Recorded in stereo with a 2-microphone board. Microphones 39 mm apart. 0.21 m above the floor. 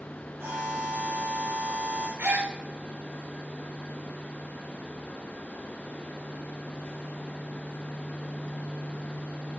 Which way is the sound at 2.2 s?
55° right (ahead or behind).